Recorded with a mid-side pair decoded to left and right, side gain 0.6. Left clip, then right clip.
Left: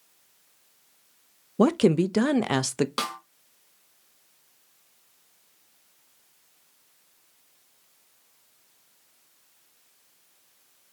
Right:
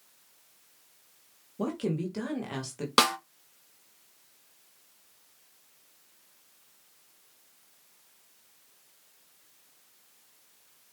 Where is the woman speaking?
60° left, 0.6 m.